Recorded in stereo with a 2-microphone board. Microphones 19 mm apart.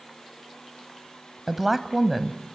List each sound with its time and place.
1.5 s a woman speaking: 10° right (ahead or behind), 1.1 m